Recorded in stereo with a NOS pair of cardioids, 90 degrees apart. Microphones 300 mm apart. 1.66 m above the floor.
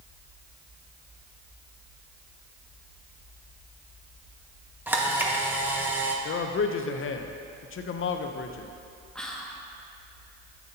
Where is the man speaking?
45° left, 0.7 m.